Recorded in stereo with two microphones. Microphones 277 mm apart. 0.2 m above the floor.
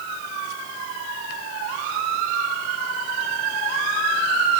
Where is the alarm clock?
No alarm clock in this recording.